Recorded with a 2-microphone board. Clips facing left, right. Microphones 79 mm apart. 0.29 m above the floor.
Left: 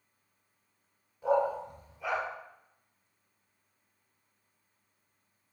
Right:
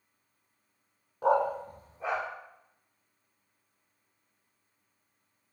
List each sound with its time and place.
1.2 s a dog barking: 80° right, 0.6 m; by 2.2 s 30° right (ahead or behind), 1.9 m